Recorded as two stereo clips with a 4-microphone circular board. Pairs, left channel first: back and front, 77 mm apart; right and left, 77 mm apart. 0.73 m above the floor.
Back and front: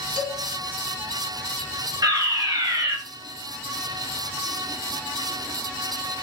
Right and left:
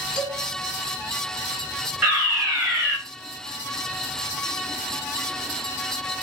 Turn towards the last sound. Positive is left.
turn(degrees=20)